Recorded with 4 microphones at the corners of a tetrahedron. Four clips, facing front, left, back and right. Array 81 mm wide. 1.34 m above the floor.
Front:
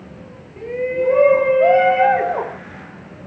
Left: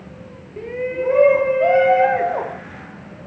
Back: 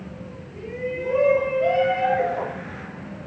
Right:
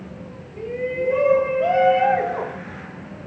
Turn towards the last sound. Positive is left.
turn(degrees=25)